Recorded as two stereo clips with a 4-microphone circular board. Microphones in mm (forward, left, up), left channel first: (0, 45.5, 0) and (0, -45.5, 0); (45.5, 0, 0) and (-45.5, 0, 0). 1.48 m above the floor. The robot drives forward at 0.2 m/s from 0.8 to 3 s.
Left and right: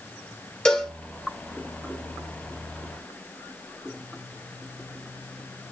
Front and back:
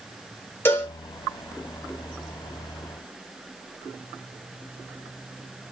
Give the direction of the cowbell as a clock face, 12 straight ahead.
11 o'clock.